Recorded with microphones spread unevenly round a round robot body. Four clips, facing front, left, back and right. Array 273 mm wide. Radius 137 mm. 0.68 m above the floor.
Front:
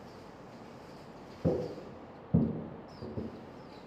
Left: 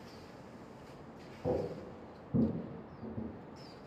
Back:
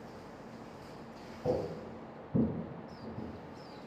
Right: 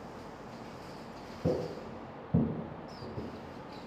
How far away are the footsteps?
About 2 m.